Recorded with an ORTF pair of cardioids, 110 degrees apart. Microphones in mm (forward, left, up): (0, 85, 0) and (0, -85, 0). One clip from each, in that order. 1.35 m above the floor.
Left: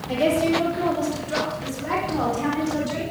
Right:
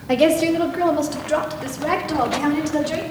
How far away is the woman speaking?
About 3 m.